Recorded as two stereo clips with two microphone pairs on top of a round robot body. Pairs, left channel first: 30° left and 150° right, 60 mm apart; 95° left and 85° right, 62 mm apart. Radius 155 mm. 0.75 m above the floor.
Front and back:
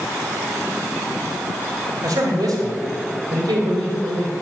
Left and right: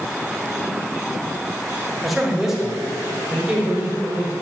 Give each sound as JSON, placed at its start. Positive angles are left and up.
{"t": 2.0, "sound": "a man speaking", "azimuth_deg": -175, "distance_m": 4.0}